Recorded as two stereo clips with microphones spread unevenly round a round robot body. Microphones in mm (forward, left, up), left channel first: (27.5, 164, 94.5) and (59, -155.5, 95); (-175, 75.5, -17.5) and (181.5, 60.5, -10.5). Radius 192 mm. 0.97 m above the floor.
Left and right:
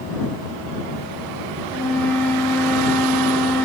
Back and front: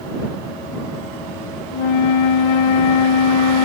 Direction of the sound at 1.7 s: Straight behind.